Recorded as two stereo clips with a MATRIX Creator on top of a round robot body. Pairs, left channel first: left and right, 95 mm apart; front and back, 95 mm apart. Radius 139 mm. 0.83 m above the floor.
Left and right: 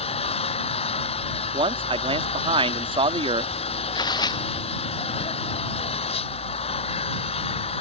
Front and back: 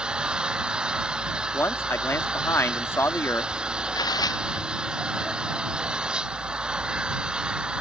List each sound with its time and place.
0.0 s an engine running: 100° left
1.5 s a man speaking: 65° right
4.0 s tearing paper: 45° left